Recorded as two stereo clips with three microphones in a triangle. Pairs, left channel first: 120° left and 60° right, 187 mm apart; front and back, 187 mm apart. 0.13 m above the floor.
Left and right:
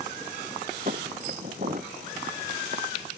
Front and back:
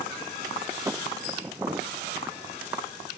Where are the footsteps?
105° right; by 2.9 s 100° right.